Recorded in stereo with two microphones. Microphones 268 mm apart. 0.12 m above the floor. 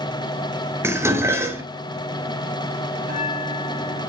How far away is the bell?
About 3.5 m.